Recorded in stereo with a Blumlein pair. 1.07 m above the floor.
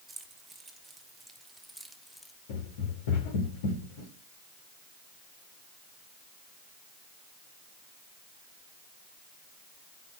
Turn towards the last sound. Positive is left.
turn(degrees=50)